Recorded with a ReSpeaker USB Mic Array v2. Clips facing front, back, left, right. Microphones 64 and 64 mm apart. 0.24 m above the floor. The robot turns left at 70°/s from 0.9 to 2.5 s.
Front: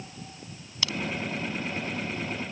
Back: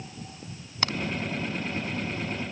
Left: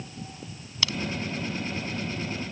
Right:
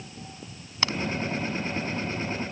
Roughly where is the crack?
Behind right.